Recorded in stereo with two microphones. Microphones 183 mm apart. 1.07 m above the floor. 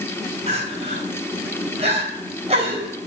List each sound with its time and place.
0.5 s crying: 35° right (ahead or behind), 4 m